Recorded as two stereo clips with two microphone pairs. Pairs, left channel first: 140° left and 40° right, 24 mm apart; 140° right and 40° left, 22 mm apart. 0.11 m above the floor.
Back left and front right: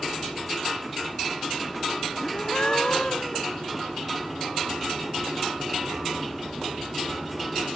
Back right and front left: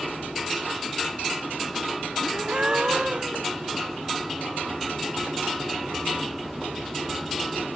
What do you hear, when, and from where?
2.2 s a gasp: 90° left